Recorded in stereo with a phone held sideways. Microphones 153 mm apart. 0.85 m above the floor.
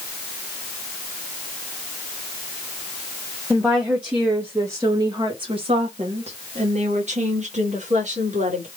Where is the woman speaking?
Centre (ahead or behind), 1.4 m; by 8.7 s 45° right (ahead or behind), 2 m.